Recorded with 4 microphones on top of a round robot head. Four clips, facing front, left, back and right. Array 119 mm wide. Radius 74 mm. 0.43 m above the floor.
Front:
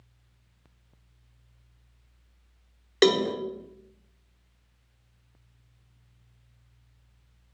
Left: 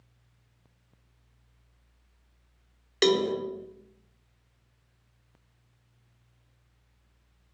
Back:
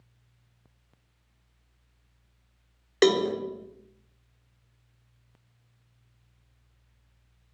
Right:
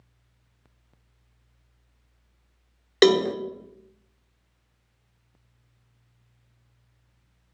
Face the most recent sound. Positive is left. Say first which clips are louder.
# right 5 dB, even
turn(degrees=-90)